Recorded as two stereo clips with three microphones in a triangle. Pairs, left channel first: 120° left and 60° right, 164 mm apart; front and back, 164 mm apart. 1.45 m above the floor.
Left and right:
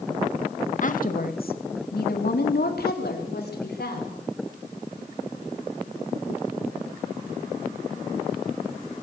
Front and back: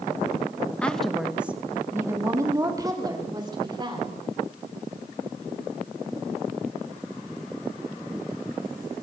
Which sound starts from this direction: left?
A woman speaking, at 0.8 s.